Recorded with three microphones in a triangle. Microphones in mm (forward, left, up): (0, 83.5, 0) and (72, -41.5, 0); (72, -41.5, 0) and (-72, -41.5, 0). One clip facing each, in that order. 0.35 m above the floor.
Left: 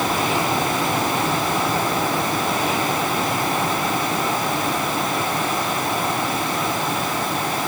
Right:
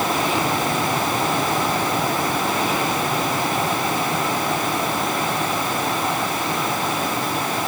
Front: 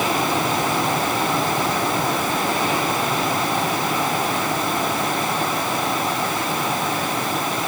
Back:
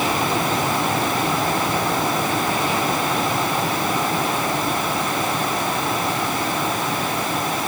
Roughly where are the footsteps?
I don't hear footsteps.